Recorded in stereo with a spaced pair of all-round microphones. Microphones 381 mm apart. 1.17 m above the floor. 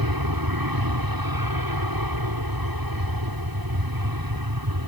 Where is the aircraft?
60° right (ahead or behind).